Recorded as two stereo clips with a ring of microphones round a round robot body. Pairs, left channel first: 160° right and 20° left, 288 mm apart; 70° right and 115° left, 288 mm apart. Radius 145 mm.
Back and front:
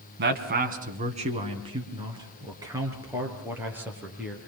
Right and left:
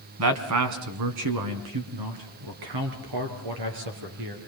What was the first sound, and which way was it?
A man speaking, 75° left.